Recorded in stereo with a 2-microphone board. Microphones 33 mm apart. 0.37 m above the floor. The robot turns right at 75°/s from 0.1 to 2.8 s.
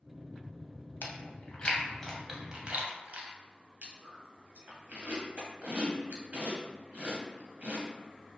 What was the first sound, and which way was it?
Chewing, 80° left.